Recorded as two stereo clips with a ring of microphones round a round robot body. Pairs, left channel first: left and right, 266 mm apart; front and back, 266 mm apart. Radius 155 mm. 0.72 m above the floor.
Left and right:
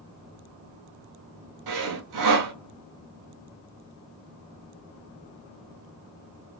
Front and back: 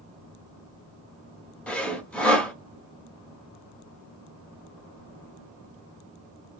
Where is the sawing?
85° right, 1.1 m.